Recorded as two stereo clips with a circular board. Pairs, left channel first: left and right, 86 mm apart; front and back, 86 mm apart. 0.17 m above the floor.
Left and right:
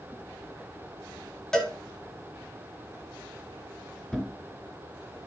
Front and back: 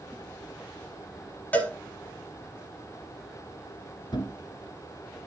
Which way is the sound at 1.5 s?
20° left.